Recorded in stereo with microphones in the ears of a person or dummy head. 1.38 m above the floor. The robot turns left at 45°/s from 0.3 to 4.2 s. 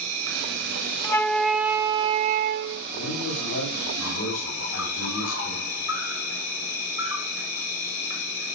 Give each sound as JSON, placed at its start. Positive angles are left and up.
{"t": 0.0, "sound": "an insect", "azimuth_deg": -95, "distance_m": 6.5}
{"t": 1.0, "sound": "a flute", "azimuth_deg": 20, "distance_m": 0.7}
{"t": 2.9, "sound": "a man speaking", "azimuth_deg": 135, "distance_m": 9.0}